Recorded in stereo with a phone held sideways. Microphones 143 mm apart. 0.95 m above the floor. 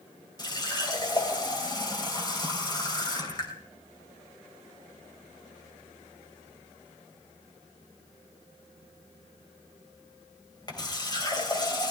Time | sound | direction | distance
0.4 | a running tap | 30° left (ahead or behind) | 3 m